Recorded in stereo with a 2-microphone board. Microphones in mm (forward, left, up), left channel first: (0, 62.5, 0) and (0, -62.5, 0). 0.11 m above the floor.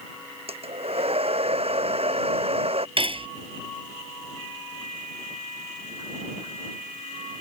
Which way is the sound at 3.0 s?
45° right (ahead or behind).